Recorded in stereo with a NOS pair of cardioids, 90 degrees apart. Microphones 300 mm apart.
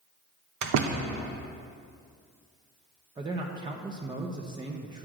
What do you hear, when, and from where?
0.6 s a door slam: 70° right, 0.8 m
3.2 s a man speaking: 15° right, 0.7 m